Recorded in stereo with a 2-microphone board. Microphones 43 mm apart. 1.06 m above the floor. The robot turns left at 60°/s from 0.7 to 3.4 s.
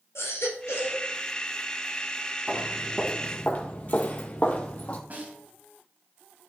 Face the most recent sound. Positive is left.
turn(degrees=-40)  # may be behind; listen again after turning